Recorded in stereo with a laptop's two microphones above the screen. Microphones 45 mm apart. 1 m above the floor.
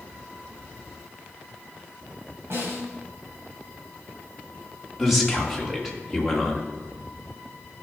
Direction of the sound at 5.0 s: Centre (ahead or behind).